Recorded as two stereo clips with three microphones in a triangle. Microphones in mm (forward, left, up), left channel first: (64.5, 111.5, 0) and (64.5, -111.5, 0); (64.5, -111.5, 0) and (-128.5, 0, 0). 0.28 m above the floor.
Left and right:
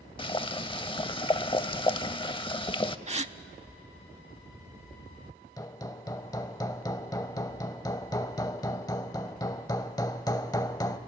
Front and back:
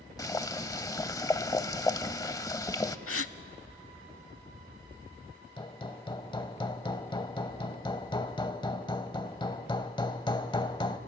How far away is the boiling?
About 0.6 m.